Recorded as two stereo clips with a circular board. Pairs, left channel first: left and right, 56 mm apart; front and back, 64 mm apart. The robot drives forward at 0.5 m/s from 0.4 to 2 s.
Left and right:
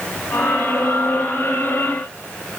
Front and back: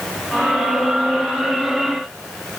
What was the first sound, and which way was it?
Only background noise.